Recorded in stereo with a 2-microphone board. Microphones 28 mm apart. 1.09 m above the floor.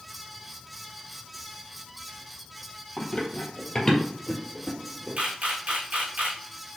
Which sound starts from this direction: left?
Running footsteps, at 3.0 s.